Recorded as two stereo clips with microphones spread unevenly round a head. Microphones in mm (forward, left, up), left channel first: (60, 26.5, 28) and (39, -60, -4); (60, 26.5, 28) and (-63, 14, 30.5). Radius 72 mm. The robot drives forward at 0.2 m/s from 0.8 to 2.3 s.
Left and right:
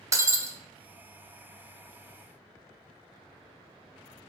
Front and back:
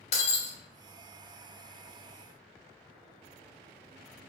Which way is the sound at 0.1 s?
40° right.